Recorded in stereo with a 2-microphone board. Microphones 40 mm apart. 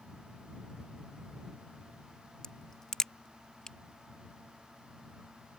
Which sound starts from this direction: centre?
A crack, at 2.4 s.